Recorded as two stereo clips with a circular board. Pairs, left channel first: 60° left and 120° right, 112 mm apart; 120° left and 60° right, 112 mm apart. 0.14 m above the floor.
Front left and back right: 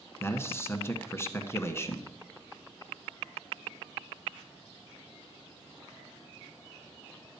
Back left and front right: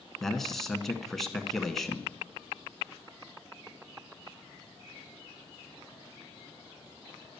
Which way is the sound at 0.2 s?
40° left.